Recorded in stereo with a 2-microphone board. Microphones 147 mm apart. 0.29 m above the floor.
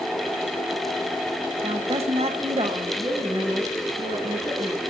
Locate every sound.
1.6 s a woman speaking: 45° right (ahead or behind), 1.1 m
3.0 s a woman speaking: 45° right (ahead or behind), 2.5 m